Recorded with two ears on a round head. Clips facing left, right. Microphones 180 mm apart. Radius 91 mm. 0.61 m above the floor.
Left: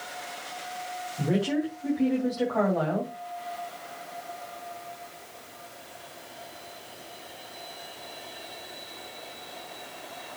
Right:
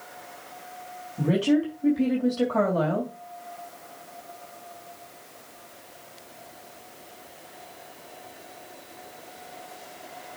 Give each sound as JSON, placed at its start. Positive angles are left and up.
{"t": 1.2, "sound": "a woman speaking", "side_deg": -35, "distance_m": 3.0}